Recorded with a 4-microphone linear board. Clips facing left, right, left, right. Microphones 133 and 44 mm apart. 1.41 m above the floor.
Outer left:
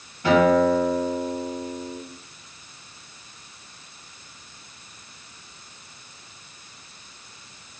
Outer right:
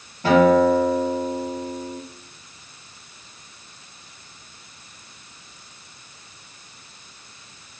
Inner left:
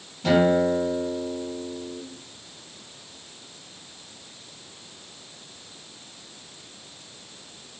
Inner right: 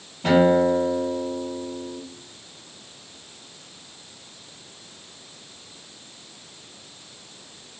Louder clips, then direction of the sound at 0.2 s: Outer right 2 dB, inner right 2 dB; 35° right (ahead or behind).